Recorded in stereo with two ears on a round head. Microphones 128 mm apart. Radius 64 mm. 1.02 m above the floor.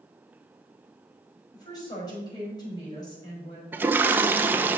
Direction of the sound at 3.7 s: 15° right (ahead or behind).